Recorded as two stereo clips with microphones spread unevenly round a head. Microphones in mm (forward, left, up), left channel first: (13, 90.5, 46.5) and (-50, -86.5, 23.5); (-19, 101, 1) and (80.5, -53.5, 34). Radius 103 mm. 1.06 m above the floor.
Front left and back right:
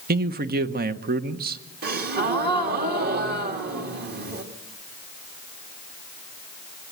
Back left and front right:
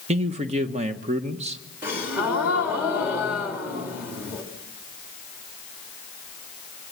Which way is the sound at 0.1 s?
115° right.